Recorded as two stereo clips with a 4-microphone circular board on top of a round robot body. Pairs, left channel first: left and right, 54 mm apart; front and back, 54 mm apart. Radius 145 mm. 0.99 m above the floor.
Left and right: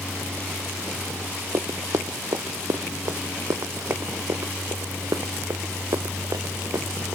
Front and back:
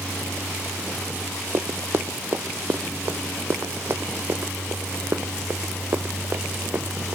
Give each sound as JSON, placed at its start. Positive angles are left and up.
{"t": 1.5, "sound": "running footsteps", "azimuth_deg": -130}